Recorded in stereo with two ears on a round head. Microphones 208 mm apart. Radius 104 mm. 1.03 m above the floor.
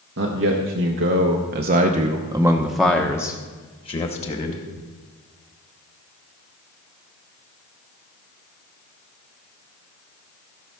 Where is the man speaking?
55° right (ahead or behind), 1.4 m; by 4.7 s 30° left (ahead or behind), 1.7 m.